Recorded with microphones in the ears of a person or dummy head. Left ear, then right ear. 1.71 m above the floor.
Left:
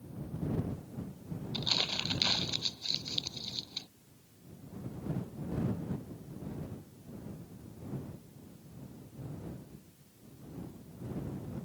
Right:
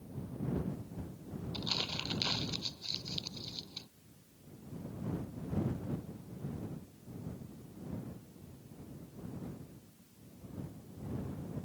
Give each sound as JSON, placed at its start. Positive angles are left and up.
{"t": 1.5, "sound": "crumpling", "side_deg": 10}